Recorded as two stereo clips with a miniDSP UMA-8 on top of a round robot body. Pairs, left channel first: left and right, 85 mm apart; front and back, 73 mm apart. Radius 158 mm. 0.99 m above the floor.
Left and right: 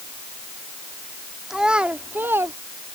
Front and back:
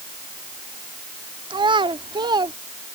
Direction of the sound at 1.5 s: 175° right.